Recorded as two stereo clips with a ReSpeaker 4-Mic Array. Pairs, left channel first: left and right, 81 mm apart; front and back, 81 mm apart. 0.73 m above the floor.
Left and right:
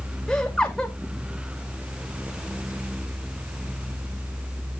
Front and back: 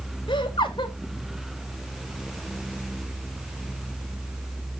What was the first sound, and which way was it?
Laughter, 10° left.